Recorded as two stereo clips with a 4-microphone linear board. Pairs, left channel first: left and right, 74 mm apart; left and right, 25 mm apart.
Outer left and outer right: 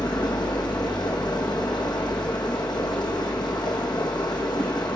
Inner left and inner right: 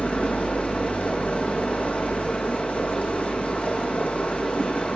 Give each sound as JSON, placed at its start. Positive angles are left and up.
{"t": 0.0, "sound": "running water", "side_deg": 75, "distance_m": 5.5}